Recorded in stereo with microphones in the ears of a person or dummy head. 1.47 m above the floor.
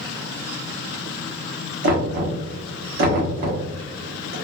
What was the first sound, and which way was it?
Knocking, 45° right (ahead or behind).